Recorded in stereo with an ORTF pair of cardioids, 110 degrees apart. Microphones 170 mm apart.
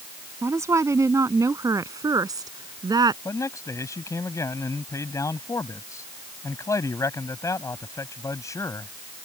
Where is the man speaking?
20° left.